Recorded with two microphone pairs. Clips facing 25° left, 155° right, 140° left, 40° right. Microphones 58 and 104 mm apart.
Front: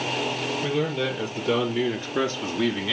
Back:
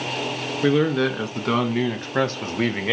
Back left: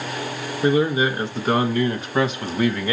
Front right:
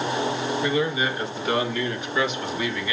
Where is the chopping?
No chopping in this recording.